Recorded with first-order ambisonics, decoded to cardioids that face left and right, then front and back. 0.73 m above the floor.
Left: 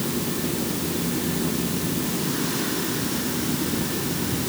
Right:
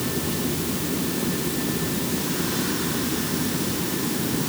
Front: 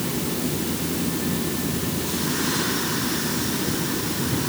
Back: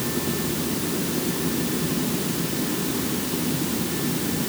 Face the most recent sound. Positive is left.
No sound to turn to.